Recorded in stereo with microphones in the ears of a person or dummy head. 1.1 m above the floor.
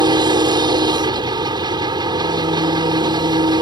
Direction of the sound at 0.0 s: 25° right (ahead or behind).